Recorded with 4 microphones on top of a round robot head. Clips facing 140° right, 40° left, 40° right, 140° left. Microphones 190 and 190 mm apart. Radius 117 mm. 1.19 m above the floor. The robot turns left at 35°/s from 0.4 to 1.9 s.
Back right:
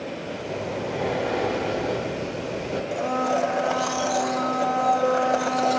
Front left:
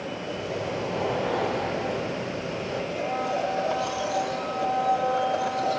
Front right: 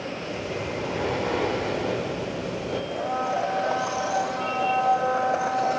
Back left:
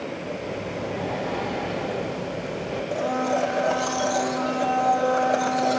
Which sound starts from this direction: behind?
A blender, at 2.9 s.